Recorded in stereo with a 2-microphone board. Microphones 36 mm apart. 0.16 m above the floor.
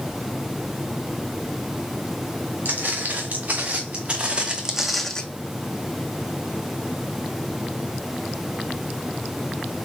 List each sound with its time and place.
2.6 s footsteps: 65° right (ahead or behind), 2 m; by 5.2 s 20° left (ahead or behind), 0.6 m